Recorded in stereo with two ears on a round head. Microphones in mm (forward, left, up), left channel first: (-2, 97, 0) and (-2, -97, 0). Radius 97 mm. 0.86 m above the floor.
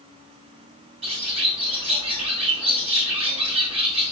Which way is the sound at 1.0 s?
30° right (ahead or behind).